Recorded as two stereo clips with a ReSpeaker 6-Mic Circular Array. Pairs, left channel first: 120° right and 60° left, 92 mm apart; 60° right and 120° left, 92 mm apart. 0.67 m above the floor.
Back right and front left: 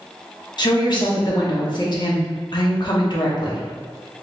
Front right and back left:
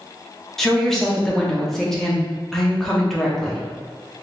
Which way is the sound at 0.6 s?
145° right.